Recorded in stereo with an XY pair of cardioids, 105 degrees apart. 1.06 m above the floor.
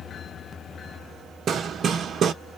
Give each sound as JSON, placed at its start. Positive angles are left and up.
{"t": 1.5, "sound": "hammering", "azimuth_deg": -55, "distance_m": 0.8}